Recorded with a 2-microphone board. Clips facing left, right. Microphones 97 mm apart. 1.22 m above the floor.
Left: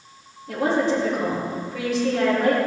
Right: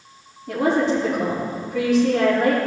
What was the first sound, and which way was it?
A woman speaking, 75° right (ahead or behind).